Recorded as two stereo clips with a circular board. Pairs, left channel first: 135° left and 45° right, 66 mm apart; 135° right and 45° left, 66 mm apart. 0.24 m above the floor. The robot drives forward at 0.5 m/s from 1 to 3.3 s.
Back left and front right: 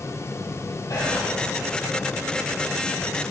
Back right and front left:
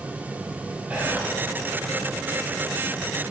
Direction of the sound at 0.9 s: 110° left.